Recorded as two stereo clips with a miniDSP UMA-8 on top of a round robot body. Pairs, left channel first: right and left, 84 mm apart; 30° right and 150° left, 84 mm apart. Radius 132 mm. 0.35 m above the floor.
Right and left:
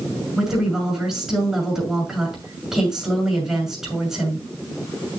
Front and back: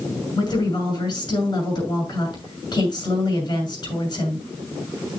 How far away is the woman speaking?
About 6 m.